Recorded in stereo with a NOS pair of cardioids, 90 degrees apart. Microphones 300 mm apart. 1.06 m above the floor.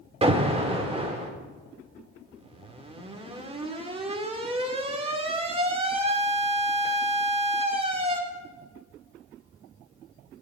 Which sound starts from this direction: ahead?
An alarm, at 0.2 s.